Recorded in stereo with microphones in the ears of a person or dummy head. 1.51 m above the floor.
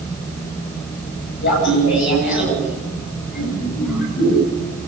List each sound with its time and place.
1.4 s laughter: 60° left (ahead or behind), 10 m; by 4.5 s 55° left (ahead or behind), 11.5 m